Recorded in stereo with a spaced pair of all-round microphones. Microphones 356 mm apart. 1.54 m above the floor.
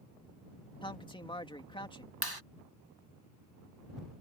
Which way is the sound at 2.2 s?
80° right.